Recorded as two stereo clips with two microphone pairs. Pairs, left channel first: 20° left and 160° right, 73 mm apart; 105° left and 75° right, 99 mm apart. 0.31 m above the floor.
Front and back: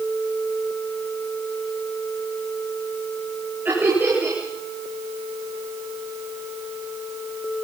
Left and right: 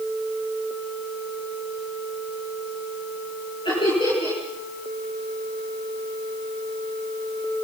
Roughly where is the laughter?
Behind left.